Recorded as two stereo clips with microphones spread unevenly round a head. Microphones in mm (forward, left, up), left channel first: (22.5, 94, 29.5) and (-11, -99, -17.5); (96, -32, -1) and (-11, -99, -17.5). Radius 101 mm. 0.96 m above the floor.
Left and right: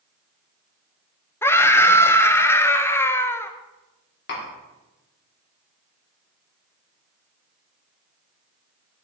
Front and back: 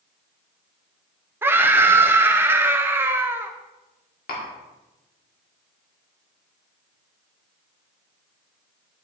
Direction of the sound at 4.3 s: 40° left.